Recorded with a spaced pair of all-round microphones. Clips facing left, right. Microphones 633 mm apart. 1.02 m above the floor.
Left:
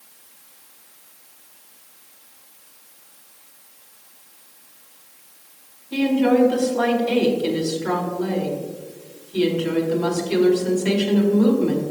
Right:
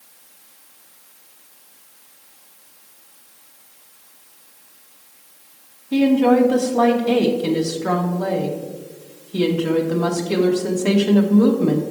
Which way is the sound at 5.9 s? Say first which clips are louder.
Right 3 dB; 65° right (ahead or behind).